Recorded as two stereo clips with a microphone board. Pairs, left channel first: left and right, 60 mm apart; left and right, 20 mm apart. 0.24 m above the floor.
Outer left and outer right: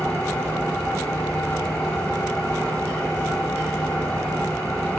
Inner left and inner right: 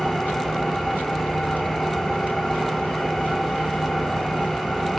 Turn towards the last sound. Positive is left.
turn(degrees=20)  # may be behind; listen again after turning